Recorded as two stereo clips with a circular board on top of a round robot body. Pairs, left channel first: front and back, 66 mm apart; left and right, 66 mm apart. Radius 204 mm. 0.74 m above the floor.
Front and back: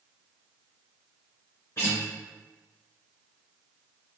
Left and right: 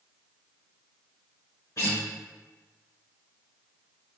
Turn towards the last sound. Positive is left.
turn(degrees=50)